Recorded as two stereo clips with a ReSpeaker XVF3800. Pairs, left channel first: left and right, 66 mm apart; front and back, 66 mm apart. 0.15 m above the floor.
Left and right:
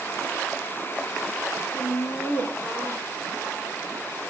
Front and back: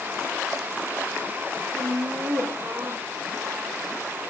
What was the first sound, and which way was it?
Laughter, 150° left.